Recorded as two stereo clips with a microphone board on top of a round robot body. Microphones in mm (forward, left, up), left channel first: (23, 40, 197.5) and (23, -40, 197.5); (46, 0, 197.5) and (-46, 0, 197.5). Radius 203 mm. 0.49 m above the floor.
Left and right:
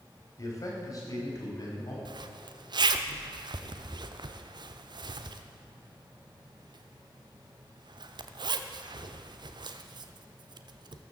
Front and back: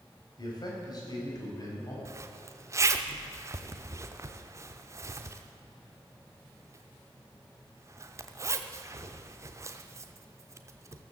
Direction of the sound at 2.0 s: 120° right.